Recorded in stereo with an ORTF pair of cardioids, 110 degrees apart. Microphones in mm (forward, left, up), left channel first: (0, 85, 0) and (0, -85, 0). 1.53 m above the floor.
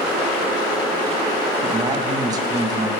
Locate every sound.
1.6 s a man speaking: 25° right, 1.0 m